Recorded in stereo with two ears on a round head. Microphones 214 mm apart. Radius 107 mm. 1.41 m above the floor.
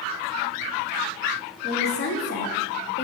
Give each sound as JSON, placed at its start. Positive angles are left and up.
{"t": 1.6, "sound": "a woman speaking", "side_deg": 45, "distance_m": 0.7}